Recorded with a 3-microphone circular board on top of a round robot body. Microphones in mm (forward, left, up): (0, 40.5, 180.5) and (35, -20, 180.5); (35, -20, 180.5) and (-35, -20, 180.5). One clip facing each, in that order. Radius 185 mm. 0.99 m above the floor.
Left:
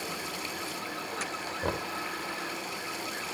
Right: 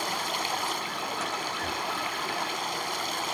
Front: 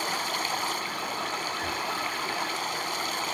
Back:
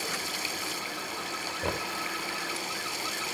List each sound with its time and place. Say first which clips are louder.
0.0 s running water: right 6 dB, front 5 dB; 35° right
1.6 s knocking: right 1 dB, front 1 dB; 140° left